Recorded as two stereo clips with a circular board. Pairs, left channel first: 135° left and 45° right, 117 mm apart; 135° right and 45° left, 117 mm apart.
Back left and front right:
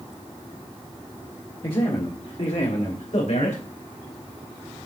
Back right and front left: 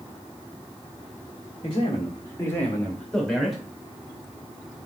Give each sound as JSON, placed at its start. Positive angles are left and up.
{"t": 1.6, "sound": "a man speaking", "azimuth_deg": -175, "distance_m": 1.6}